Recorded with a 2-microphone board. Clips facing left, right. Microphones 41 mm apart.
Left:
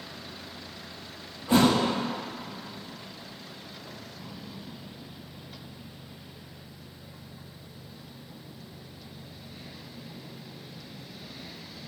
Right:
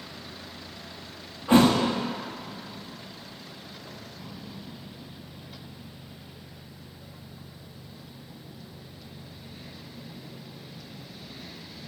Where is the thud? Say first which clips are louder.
Right 3 dB; 35° right (ahead or behind), 2.0 m.